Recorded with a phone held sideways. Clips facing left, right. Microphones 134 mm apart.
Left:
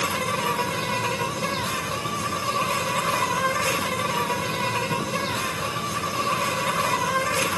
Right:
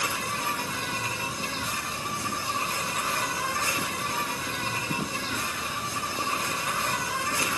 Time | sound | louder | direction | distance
0.0 | an insect | left 6 dB | 65° left (ahead or behind) | 1.8 m